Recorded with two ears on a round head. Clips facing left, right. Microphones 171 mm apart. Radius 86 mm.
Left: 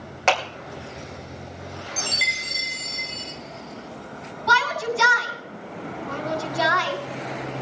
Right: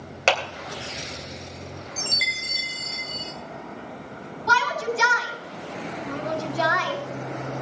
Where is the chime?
5° right (ahead or behind), 5 m.